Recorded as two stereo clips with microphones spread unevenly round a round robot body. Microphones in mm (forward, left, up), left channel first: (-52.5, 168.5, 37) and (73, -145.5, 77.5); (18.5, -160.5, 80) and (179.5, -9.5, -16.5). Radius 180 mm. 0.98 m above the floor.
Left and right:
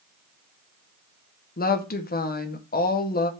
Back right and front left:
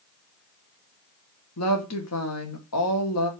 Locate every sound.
1.6 s a woman speaking: 175° left, 1.8 m